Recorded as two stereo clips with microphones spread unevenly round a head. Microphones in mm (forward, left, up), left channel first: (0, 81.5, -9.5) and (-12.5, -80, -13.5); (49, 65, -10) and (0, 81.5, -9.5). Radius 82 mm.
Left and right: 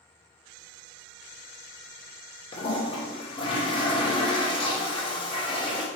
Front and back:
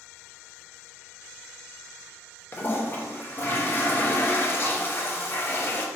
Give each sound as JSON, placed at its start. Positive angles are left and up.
{"t": 2.5, "sound": "a toilet flushing", "azimuth_deg": 25, "distance_m": 0.9}